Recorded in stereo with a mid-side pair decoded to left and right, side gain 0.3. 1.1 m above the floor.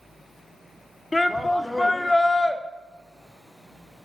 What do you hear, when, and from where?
1.1 s a shout: 25° left, 2.5 m